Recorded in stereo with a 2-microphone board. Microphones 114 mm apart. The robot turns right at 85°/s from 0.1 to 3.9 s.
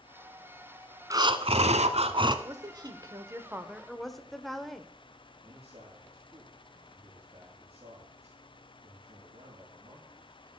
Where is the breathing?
150° right, 0.9 m; by 2.4 s 40° right, 0.9 m.